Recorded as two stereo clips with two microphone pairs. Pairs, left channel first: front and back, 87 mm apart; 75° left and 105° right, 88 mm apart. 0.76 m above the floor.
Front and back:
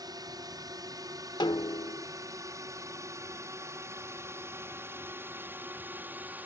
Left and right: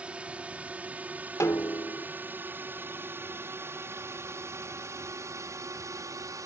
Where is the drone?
175° right; by 6.5 s 120° right.